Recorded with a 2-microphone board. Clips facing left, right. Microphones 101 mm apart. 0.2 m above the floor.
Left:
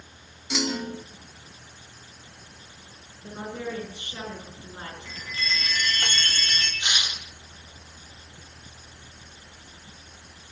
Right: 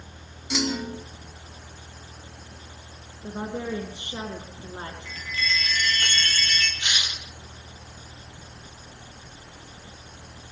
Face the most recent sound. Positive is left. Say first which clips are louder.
# even
turn(degrees=20)  # may be behind; listen again after turning